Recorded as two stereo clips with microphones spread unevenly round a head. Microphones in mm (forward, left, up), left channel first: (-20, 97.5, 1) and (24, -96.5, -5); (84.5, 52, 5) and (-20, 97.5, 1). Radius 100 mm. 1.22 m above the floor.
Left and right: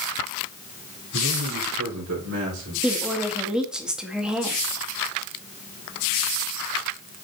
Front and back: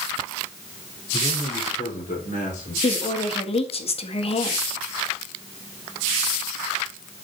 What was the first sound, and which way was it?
A man speaking, 80° right.